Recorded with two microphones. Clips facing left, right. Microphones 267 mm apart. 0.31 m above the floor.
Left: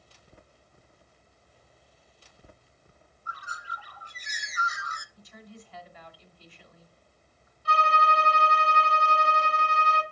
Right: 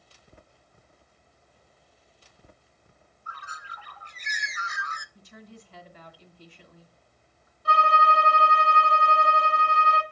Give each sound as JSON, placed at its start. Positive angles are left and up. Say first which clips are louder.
{"t": 3.3, "sound": "a bird", "louder": "left 2 dB", "side_deg": -65, "distance_m": 0.6}
{"t": 5.2, "sound": "a woman speaking", "louder": "right 1 dB", "side_deg": -45, "distance_m": 1.8}
{"t": 7.7, "sound": "a violin", "louder": "right 2 dB", "side_deg": -55, "distance_m": 1.8}